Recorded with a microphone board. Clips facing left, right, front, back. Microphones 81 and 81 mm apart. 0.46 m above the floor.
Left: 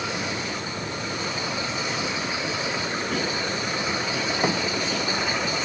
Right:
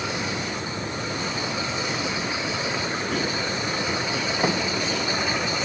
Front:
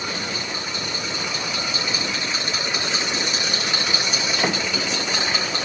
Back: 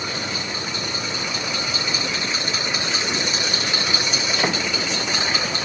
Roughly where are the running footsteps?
No running footsteps in this recording.